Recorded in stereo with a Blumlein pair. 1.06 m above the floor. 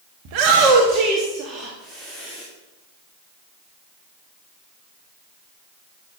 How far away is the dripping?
I don't hear dripping.